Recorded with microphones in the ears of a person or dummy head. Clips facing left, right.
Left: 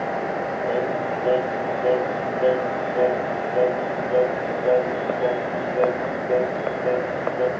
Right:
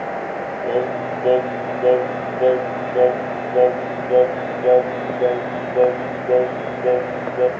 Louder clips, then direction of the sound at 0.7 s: Right 4 dB; 65° right (ahead or behind).